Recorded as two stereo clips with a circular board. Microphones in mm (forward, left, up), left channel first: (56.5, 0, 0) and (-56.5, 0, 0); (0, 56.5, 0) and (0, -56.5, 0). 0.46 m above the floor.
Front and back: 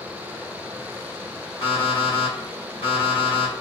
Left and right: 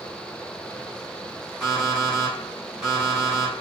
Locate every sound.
1.6 s an alarm clock: 5° right, 1.7 m